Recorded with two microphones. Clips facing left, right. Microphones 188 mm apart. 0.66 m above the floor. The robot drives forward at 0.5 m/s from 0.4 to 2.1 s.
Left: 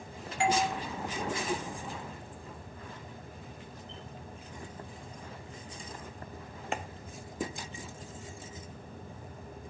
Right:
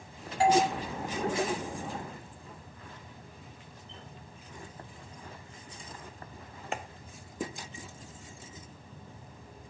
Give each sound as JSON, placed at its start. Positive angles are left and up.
{"t": 0.4, "sound": "a doorbell", "side_deg": -35, "distance_m": 1.6}